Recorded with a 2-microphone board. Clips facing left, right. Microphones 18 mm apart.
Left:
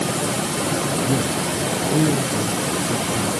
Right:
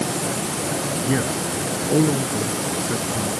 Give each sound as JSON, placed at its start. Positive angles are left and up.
{"t": 1.0, "sound": "a man speaking", "side_deg": -55}